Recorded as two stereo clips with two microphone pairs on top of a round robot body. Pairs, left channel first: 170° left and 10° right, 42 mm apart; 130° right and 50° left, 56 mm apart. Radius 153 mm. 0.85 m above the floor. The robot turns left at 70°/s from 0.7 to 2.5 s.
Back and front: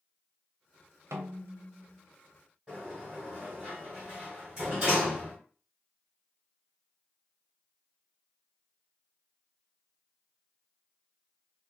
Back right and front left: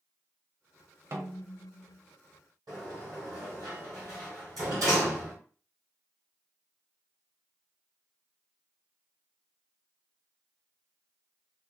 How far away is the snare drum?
About 0.5 m.